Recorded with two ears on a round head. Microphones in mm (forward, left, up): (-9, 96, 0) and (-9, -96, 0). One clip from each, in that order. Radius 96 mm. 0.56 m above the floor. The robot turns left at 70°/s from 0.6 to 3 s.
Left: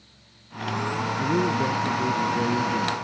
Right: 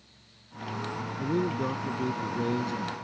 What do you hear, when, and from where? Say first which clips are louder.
1.2 s a man speaking: left 5 dB; 10° left; by 2.9 s 110° right